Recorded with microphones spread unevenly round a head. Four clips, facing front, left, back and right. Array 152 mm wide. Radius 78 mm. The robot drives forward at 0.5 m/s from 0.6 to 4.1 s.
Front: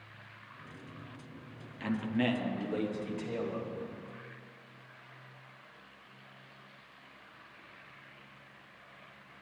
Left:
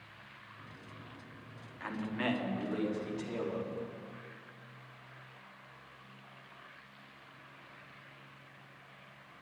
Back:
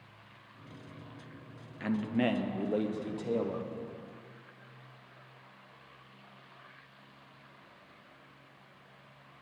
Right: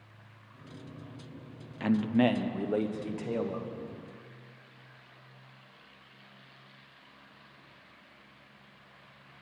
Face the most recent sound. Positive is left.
turn(degrees=-150)